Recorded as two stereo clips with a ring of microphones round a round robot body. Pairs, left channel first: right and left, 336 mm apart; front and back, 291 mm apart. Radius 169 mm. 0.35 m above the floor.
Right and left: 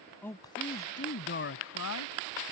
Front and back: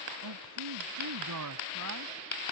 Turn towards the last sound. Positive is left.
turn(degrees=-130)